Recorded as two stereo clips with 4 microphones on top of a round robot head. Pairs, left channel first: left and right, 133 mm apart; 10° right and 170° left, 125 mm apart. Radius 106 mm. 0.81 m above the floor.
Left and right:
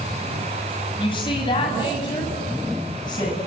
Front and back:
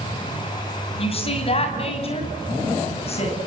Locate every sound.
1.0 s a woman speaking: 30° left, 6.5 m; by 3.4 s 25° left, 8 m